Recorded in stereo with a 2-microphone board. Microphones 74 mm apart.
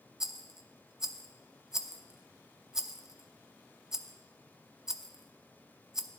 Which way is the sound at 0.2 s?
5° right (ahead or behind).